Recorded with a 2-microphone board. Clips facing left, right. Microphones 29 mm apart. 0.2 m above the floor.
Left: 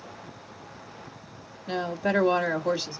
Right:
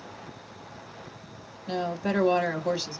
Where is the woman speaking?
10° left (ahead or behind), 1.1 m.